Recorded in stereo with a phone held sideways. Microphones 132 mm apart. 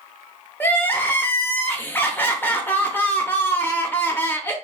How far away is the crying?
About 0.6 m.